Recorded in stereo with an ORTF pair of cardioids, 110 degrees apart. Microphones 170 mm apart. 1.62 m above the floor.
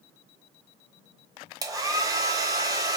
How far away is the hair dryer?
About 0.9 m.